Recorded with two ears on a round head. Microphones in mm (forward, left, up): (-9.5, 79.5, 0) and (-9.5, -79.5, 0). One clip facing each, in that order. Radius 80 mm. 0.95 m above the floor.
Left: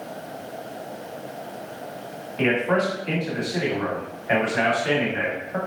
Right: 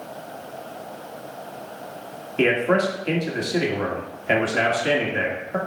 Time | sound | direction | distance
2.4 | a man speaking | 35° right (ahead or behind) | 1.3 m